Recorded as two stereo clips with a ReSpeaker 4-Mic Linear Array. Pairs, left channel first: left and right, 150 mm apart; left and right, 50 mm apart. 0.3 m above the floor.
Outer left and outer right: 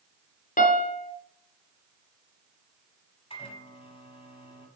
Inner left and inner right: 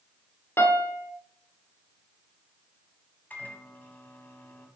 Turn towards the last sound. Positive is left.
turn(degrees=40)  # may be behind; listen again after turning